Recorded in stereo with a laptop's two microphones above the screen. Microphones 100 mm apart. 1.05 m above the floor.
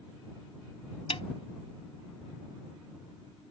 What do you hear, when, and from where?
1.1 s a snare drum: 65° left (ahead or behind)